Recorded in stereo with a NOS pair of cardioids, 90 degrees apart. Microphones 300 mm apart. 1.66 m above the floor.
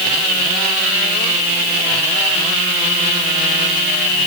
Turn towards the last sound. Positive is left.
No sound to turn to.